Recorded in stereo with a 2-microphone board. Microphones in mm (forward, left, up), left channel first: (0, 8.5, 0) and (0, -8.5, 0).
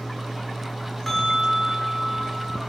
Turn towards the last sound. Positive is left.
turn(degrees=30)  # may be behind; listen again after turning